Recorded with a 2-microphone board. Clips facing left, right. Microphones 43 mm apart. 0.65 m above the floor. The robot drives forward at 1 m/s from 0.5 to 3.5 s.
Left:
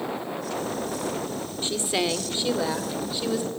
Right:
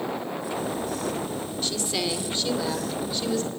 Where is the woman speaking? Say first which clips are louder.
Left 4 dB; 25° left (ahead or behind), 2.0 m; by 3.5 s 15° left (ahead or behind), 3.5 m.